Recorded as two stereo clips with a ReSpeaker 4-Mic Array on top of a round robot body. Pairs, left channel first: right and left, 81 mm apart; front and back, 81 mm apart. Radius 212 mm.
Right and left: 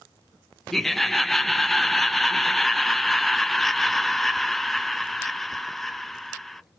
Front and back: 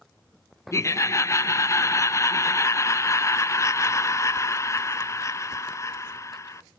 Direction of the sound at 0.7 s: 5° right.